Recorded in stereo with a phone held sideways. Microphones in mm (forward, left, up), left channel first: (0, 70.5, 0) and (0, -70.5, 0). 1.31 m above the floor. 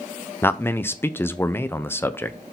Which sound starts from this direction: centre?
A man speaking, at 0.4 s.